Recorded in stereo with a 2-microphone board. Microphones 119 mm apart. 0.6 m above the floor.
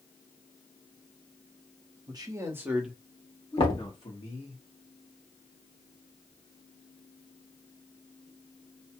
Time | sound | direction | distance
2.1 | a man speaking | 35° right (ahead or behind) | 1.0 m
3.6 | knocking | 45° left (ahead or behind) | 1.0 m